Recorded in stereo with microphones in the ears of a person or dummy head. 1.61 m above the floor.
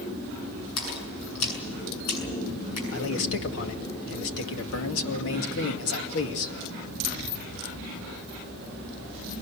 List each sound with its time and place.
0.8 s a splash: 80° left, 7.5 m
2.9 s a man speaking: 70° left (ahead or behind), 2.5 m